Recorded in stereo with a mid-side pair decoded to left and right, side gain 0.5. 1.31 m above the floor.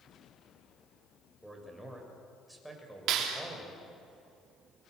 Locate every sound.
1.4 s a man speaking: 10° right, 7 m
3.1 s a clap: 70° right, 3.5 m